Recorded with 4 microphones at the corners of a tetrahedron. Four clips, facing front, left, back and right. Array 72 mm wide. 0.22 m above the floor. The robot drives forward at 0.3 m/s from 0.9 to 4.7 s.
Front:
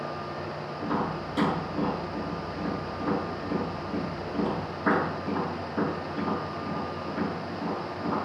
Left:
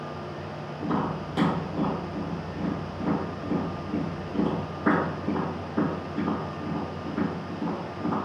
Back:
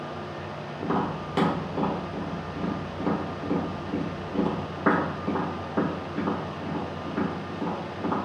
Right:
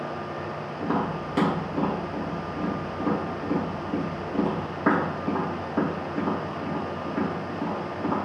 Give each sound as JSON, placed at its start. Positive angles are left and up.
{"t": 0.8, "sound": "tapping", "azimuth_deg": -140, "distance_m": 2.0}